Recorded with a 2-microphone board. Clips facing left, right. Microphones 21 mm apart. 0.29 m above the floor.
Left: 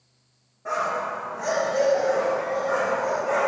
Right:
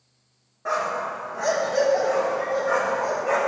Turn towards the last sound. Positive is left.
turn(degrees=-65)  # may be behind; listen again after turning